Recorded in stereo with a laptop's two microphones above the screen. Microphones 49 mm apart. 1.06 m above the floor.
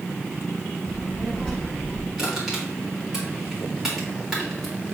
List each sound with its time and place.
0.8 s a child speaking: 15° left (ahead or behind), 4.5 m; by 2.1 s 10° left (ahead or behind), 4.5 m
2.2 s crushing: 10° right (ahead or behind), 2 m